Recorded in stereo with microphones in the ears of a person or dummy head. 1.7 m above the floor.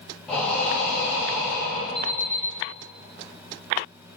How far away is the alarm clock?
About 1.7 m.